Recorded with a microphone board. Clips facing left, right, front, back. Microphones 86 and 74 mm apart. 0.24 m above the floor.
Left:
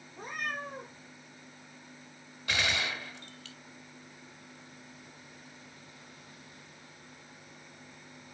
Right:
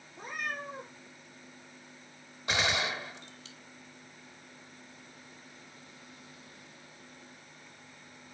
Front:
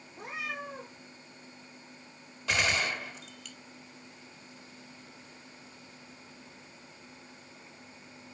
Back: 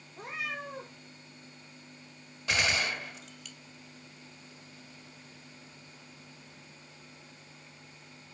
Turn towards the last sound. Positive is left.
turn(degrees=-95)